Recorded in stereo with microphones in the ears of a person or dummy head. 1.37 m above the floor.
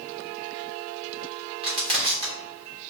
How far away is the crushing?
About 1.4 m.